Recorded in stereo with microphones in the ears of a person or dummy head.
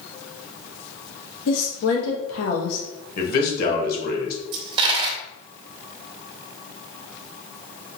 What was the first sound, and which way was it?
A woman speaking, 85° left.